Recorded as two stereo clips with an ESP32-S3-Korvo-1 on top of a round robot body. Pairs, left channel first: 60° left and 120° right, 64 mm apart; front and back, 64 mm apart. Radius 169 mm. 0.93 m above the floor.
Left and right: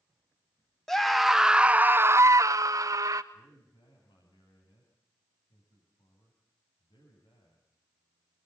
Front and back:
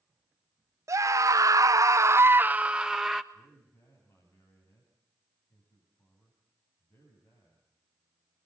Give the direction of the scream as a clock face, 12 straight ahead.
7 o'clock.